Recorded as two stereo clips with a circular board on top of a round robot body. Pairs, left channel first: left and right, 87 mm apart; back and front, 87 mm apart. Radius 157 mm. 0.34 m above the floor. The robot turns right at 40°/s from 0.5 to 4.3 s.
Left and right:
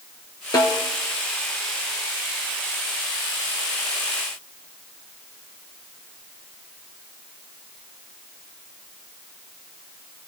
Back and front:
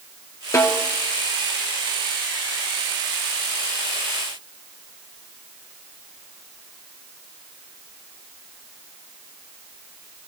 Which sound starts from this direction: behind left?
A snare drum, at 0.5 s.